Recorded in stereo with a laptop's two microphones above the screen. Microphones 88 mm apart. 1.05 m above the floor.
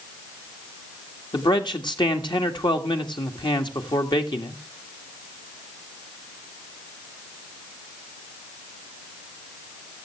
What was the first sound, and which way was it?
A man speaking, 60° left (ahead or behind).